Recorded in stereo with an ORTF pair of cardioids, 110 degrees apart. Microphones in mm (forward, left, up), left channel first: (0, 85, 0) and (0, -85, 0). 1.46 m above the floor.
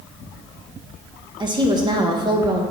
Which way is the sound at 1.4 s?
25° right.